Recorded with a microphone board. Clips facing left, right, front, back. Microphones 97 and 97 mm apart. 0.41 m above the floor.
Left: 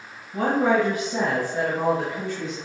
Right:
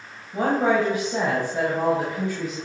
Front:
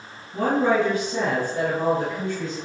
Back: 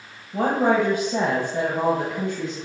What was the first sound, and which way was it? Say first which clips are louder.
A woman speaking: even, back 1 dB; 155° right.